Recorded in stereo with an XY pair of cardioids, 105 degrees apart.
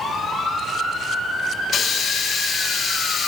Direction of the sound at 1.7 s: 55° left.